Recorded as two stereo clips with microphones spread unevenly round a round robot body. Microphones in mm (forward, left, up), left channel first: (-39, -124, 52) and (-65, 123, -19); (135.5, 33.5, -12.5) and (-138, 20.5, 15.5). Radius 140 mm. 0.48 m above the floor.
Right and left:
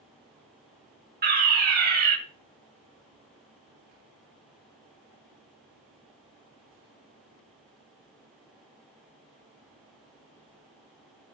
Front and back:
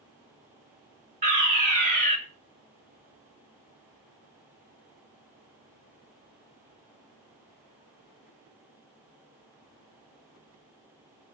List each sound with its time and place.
1.2 s a fire alarm: 125° left, 3.5 m